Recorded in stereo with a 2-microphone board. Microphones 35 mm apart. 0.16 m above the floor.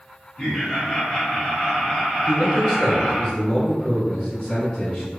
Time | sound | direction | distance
0.4 | laughter | 15° left (ahead or behind) | 1.7 m
2.3 | a man speaking | 20° left (ahead or behind) | 1.2 m